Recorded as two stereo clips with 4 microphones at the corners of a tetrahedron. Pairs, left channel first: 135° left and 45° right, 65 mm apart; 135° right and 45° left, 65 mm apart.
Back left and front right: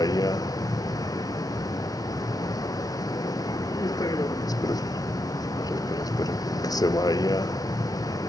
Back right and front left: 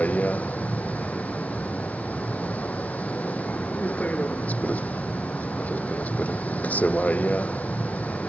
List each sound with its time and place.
0.0 s a vehicle: 160° left